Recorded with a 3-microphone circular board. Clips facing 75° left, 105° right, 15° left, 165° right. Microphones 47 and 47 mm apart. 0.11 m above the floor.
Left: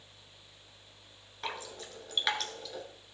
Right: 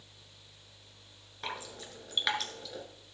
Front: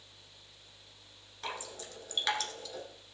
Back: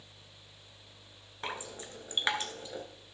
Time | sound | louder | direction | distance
1.4 | dripping | left 1 dB, back 1 dB | 170° left | 1.4 m